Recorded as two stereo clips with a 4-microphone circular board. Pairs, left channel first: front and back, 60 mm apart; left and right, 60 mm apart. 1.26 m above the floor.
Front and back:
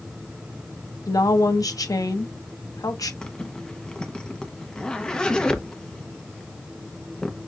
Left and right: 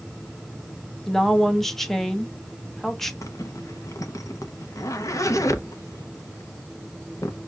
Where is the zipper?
75° left, 0.8 m.